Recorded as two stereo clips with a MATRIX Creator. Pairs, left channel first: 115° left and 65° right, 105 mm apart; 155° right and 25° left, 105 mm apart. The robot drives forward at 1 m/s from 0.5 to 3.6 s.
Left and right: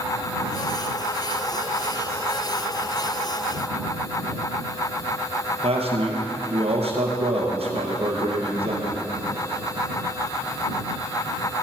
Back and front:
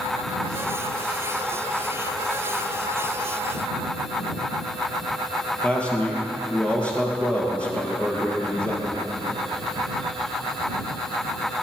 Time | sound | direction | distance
5.6 | a man speaking | 80° right | 3.5 m